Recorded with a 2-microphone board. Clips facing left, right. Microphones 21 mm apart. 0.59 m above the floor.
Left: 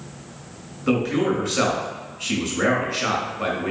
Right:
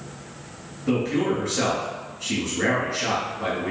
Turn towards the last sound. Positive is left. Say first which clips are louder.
# left 2 dB
turn(degrees=45)  # may be behind; listen again after turning